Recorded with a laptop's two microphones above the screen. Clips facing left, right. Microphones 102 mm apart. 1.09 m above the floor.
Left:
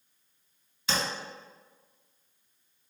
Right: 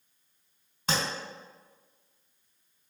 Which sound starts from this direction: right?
Tapping, at 0.9 s.